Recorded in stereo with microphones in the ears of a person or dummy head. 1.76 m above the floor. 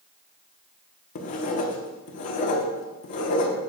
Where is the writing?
40° left (ahead or behind), 1.1 m.